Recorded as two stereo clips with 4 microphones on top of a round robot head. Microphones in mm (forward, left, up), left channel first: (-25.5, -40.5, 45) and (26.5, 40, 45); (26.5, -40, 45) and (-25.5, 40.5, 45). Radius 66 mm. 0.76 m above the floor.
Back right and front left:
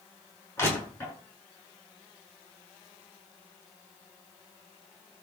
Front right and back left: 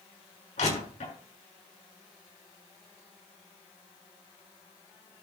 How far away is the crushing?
About 7.5 m.